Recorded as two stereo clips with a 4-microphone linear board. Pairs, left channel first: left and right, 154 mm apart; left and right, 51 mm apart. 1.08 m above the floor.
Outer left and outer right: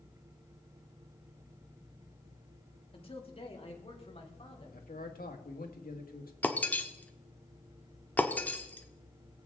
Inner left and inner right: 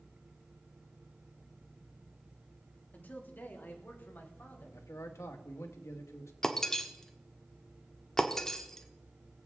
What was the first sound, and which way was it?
A man speaking, 40° left (ahead or behind).